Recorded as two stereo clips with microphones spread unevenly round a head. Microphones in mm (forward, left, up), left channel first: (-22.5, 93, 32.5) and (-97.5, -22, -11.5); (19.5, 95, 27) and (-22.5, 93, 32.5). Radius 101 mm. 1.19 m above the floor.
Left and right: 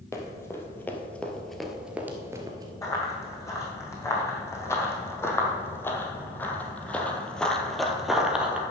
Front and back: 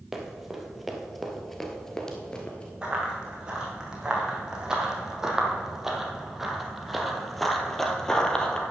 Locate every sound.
0.1 s running footsteps: 110° left, 2 m; by 2.7 s 50° right, 1.2 m
2.8 s running footsteps: 115° left, 3.5 m; by 8.6 s 35° left, 1.2 m